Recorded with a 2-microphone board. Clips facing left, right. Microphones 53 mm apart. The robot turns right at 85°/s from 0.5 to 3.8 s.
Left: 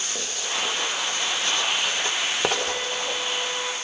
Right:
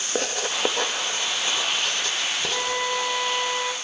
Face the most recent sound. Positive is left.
turn(degrees=-20)